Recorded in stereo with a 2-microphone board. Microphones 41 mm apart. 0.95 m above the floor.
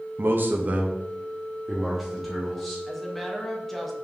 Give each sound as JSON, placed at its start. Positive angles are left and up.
{"t": 0.2, "sound": "a man speaking", "side_deg": -60, "distance_m": 0.7}
{"t": 2.9, "sound": "a woman speaking", "side_deg": 5, "distance_m": 0.9}